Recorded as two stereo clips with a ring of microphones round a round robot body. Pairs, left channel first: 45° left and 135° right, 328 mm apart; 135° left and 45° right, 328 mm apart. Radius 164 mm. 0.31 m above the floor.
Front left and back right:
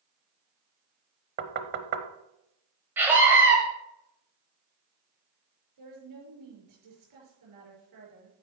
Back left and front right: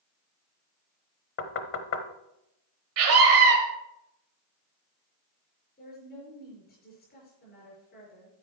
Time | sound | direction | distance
1.4 | knocking | 175° left | 0.9 m
3.0 | a scream | 55° right | 1.3 m
5.8 | a woman speaking | 165° right | 6 m